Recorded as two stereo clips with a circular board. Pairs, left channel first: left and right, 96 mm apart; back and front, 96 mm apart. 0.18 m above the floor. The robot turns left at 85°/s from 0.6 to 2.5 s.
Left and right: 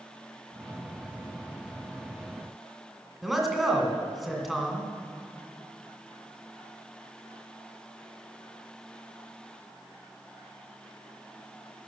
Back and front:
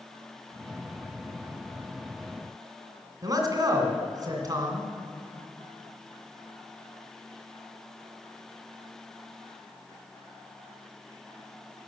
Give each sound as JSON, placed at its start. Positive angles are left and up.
{"t": 3.2, "sound": "a man speaking", "azimuth_deg": 0, "distance_m": 2.0}